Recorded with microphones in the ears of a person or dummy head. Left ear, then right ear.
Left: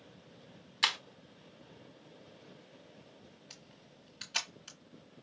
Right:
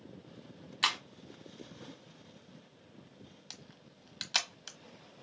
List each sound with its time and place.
0.8 s breaking glass: 10° left (ahead or behind), 1.0 m
3.5 s a camera shutter: 45° right (ahead or behind), 1.2 m